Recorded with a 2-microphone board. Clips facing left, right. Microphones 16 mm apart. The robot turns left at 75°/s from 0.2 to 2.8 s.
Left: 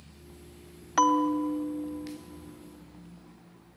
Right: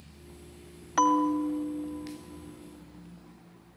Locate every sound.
1.0 s a bell: 5° left (ahead or behind), 0.8 m; by 2.2 s 20° left (ahead or behind), 0.8 m